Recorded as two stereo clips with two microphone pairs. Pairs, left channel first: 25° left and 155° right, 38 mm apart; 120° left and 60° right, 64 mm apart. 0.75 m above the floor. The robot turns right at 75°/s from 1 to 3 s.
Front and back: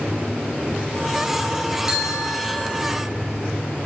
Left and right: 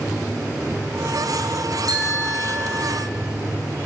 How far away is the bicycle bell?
About 8 m.